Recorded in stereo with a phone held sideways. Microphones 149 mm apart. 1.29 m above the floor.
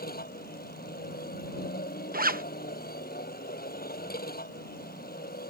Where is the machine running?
75° left (ahead or behind).